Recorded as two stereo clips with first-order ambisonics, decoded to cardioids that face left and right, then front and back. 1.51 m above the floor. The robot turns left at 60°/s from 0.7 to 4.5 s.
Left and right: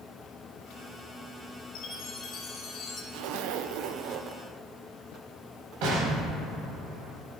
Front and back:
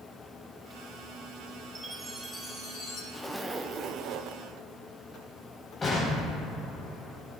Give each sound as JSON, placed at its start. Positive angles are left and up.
{"t": 1.8, "sound": "a chime", "azimuth_deg": 110, "distance_m": 1.5}
{"t": 3.1, "sound": "a zipper", "azimuth_deg": -75, "distance_m": 0.5}
{"t": 5.8, "sound": "an explosion", "azimuth_deg": -75, "distance_m": 3.0}